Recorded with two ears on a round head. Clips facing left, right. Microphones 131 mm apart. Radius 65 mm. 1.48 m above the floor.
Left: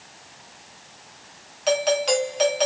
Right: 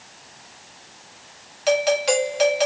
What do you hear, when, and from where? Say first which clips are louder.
1.7 s a doorbell: right 2 dB; 5° right (ahead or behind), 2 m